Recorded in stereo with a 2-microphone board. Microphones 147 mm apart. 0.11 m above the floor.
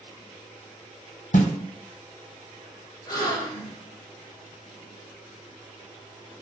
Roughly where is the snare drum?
Left.